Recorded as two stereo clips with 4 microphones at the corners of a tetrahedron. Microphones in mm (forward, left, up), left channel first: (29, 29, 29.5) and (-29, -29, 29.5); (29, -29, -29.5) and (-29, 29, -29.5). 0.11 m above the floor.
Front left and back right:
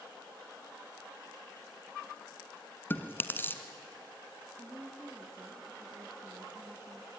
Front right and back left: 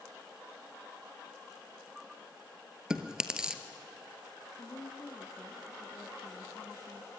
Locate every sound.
2.9 s chewing: 65° left, 1.4 m
4.6 s a woman speaking: 80° right, 2 m